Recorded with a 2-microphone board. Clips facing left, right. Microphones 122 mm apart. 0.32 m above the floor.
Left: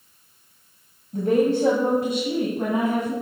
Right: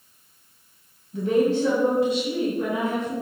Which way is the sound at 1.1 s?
45° left (ahead or behind).